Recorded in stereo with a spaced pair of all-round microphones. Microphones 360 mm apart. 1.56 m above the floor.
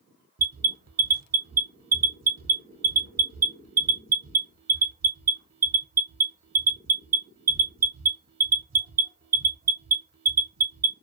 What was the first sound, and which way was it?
An alarm, 45° right (ahead or behind).